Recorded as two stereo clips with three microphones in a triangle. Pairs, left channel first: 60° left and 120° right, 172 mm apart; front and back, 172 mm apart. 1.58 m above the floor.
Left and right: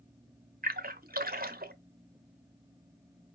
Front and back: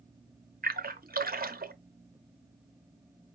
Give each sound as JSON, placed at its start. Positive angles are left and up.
{"t": 0.6, "sound": "a splash", "azimuth_deg": -150, "distance_m": 0.6}